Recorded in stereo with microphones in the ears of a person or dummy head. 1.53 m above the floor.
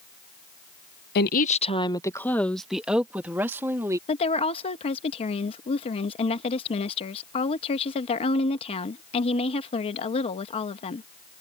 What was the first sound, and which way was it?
A woman speaking, 60° left (ahead or behind).